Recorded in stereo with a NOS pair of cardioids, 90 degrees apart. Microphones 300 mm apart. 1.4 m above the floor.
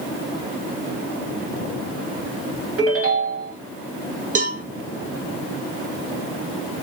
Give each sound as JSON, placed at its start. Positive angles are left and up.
{"t": 2.8, "sound": "a ringtone", "azimuth_deg": -50, "distance_m": 1.2}
{"t": 4.3, "sound": "a cowbell", "azimuth_deg": -25, "distance_m": 0.6}